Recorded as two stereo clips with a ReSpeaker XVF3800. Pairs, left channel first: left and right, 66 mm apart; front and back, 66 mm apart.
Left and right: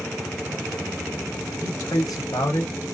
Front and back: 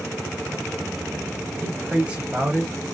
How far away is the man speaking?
About 1.1 m.